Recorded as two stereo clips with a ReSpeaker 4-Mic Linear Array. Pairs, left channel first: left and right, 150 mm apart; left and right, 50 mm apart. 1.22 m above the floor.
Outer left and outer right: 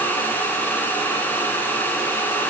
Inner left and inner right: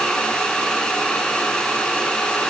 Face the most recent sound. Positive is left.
No sound to turn to.